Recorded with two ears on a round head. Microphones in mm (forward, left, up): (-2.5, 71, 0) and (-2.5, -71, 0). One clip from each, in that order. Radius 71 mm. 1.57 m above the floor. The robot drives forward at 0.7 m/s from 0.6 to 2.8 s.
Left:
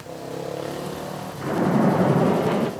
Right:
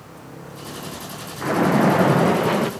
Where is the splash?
70° right (ahead or behind), 1.0 m; by 2.7 s 40° right (ahead or behind), 1.4 m.